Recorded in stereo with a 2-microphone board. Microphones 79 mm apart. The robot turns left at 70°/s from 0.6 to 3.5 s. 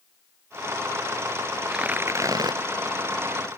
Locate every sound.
1.7 s tearing paper: 5° right; by 2.6 s 70° right